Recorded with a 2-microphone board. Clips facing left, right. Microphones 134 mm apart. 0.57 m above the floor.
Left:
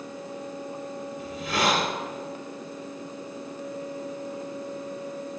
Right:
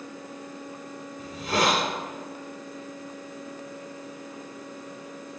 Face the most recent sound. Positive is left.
turn(degrees=-40)  # may be behind; listen again after turning